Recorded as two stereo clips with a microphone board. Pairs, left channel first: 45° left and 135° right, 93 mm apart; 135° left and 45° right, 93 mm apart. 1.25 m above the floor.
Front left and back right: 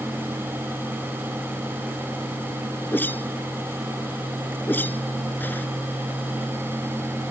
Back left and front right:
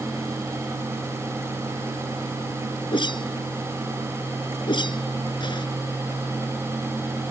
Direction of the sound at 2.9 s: 115° left.